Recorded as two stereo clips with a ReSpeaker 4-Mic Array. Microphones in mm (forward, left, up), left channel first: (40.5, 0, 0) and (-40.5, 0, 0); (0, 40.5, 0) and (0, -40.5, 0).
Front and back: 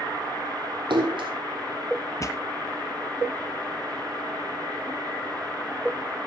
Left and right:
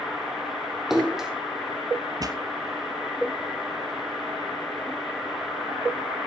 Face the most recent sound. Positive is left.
turn(degrees=-50)